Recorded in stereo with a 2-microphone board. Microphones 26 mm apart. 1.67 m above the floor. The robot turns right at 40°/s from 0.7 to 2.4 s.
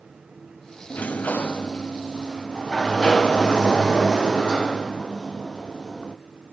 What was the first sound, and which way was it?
A sliding door, 85° left.